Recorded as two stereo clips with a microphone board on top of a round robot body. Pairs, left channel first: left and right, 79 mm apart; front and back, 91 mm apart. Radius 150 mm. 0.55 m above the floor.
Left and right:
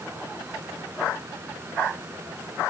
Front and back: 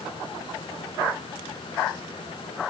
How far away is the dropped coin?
I don't hear a dropped coin.